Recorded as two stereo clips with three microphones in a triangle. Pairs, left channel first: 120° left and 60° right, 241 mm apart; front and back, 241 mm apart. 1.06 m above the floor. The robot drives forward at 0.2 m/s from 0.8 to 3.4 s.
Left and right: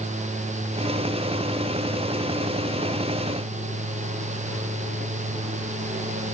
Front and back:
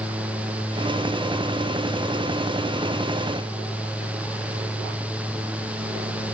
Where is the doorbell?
I don't hear a doorbell.